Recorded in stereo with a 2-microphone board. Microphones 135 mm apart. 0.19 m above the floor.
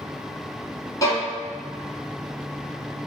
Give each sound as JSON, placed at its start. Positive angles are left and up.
{"t": 1.0, "sound": "a violin", "side_deg": 25, "distance_m": 1.2}